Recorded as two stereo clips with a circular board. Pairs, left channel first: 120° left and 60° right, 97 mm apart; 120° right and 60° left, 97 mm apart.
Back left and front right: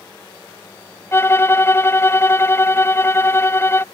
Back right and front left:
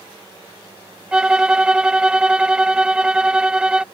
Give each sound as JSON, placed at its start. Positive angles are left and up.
{"t": 1.1, "sound": "a violin", "azimuth_deg": 130}